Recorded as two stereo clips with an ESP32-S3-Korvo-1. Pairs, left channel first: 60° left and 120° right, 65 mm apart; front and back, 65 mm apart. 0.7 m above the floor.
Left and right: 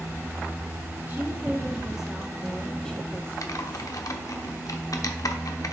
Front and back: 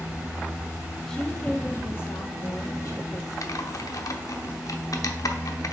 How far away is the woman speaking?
About 1.0 m.